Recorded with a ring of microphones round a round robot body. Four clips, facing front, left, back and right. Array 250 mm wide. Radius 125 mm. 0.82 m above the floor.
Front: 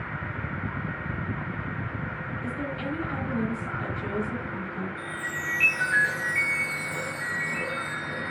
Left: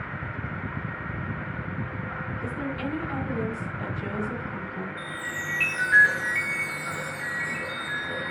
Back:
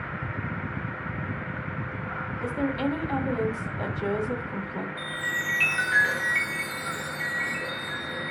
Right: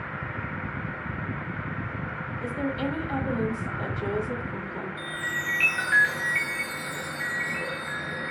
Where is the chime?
130° right, 4.5 m.